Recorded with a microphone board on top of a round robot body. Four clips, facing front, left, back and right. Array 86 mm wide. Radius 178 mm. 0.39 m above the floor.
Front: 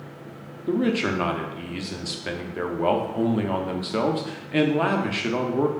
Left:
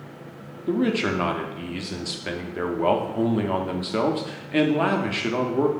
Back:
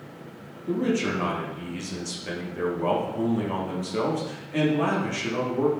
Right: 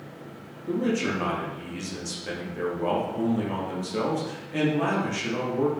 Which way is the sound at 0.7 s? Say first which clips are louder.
Left 3 dB, front 2 dB; 45° left.